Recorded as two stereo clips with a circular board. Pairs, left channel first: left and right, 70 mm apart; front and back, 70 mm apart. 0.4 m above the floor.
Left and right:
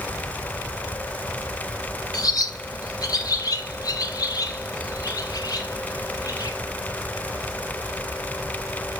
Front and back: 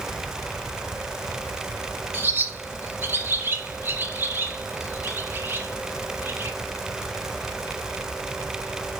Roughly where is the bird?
Behind left.